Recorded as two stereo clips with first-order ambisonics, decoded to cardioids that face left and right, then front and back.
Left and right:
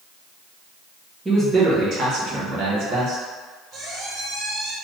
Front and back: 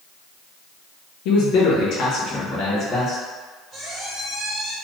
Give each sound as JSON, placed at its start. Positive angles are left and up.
{"t": 1.2, "sound": "a man speaking", "azimuth_deg": -10, "distance_m": 0.6}
{"t": 3.7, "sound": "a squeak", "azimuth_deg": -110, "distance_m": 1.4}